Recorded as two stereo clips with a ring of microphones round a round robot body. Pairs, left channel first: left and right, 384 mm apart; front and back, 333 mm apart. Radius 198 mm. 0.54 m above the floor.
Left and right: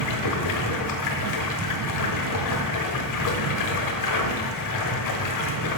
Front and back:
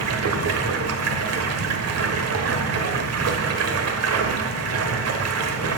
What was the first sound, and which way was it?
Running water, 135° left.